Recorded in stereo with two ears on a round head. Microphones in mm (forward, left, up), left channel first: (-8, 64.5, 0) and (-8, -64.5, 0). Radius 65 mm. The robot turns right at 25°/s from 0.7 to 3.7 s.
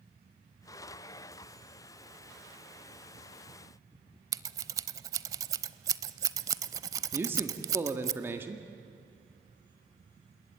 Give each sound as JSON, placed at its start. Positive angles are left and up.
{"t": 4.3, "sound": "scissors", "side_deg": -25, "distance_m": 0.8}
{"t": 7.1, "sound": "a man speaking", "side_deg": -15, "distance_m": 1.6}